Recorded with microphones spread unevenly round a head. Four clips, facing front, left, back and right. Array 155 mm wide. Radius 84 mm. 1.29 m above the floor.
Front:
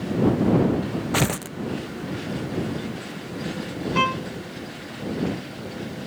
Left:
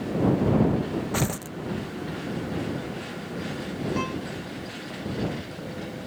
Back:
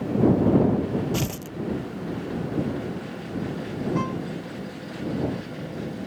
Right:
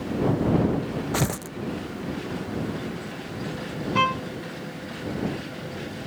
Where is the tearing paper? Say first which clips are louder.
Right 1 dB, front 4 dB; 10° right.